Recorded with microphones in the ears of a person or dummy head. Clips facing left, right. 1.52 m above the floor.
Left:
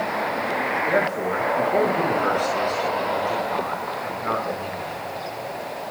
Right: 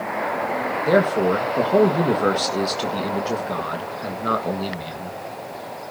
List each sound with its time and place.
0.9 s a man speaking: 55° right (ahead or behind), 1.6 m